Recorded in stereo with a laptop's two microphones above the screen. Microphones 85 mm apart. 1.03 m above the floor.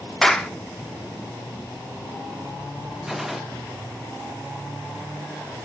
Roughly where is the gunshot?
Centre.